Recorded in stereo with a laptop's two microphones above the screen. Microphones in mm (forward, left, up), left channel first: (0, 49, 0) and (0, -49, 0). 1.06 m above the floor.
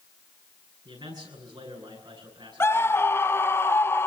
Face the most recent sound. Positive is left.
turn(degrees=25)  # may be behind; listen again after turning